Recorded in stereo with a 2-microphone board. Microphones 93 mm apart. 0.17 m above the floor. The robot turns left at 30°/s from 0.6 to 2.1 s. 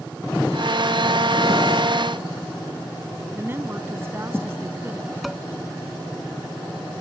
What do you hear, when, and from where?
3.3 s a woman speaking: 30° right (ahead or behind)
5.2 s dishes clattering: centre (ahead or behind)